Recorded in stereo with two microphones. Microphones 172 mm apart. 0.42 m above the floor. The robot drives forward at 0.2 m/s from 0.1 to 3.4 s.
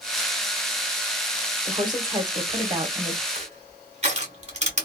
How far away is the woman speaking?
About 1.0 m.